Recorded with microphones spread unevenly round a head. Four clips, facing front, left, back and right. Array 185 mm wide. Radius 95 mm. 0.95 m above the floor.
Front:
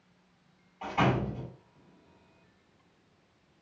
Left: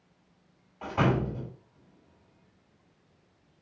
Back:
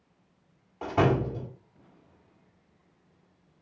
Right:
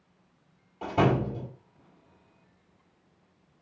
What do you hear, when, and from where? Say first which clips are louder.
0.8 s a door slam: right 2 dB, back 3 dB; 150° right, 1.8 m